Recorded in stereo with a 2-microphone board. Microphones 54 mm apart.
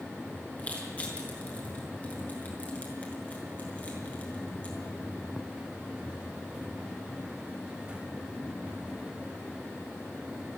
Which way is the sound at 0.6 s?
25° left (ahead or behind).